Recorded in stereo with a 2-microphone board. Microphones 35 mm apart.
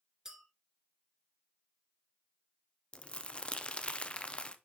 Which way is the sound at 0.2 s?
15° right (ahead or behind).